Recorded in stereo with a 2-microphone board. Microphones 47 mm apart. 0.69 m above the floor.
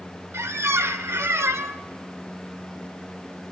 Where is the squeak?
70° right (ahead or behind), 0.6 m.